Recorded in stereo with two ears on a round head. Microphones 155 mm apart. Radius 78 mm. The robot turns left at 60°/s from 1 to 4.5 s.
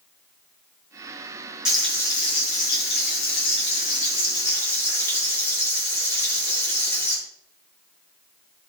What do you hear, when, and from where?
1.6 s frying: 175° right, 6.5 m; by 7.2 s 15° left, 6.5 m